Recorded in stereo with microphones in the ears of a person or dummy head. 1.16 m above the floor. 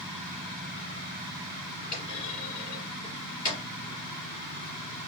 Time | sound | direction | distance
1.9 | a clunk | 25° left (ahead or behind) | 3.5 m